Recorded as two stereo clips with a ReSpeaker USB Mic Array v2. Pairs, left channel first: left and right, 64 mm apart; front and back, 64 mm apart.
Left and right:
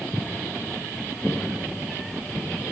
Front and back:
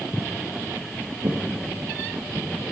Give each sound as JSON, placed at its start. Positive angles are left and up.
{"t": 0.1, "sound": "footsteps", "azimuth_deg": -90, "distance_m": 0.5}